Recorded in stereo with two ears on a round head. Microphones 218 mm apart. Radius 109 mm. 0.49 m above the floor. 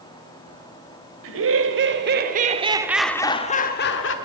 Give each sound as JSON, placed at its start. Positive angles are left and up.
{"t": 1.2, "sound": "laughter", "side_deg": -60, "distance_m": 2.0}